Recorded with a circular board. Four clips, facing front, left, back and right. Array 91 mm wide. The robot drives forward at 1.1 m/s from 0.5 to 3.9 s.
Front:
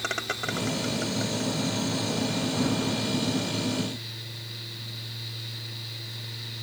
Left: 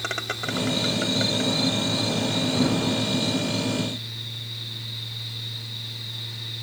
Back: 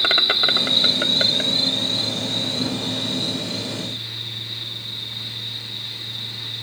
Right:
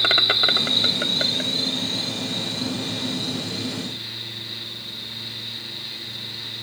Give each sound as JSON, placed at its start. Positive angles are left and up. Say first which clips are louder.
{"t": 0.0, "sound": "an insect", "louder": "right 6 dB, back 7 dB", "azimuth_deg": -140}